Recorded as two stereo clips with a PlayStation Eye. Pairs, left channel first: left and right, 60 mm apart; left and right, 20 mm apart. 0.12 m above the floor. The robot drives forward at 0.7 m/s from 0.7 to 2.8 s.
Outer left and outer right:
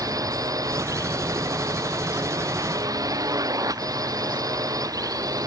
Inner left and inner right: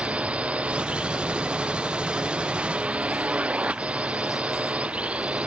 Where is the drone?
80° right.